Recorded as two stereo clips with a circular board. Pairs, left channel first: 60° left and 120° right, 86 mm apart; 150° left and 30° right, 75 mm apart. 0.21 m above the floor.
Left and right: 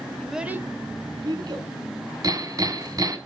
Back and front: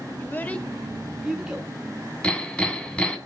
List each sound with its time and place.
0.2 s a child speaking: 140° left, 0.8 m; by 1.7 s 105° right, 1.8 m
2.2 s hammering: 140° right, 1.8 m